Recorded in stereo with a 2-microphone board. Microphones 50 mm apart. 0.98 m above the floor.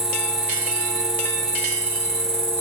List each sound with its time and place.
0.0 s an insect: 85° left, 1.0 m